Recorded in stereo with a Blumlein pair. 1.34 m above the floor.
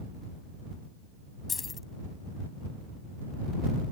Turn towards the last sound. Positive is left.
turn(degrees=15)